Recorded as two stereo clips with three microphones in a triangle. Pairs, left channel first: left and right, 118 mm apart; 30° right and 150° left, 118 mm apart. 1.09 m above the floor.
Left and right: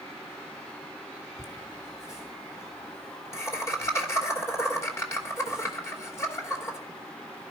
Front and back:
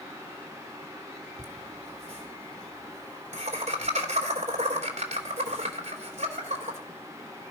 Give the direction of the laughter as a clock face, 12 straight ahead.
7 o'clock.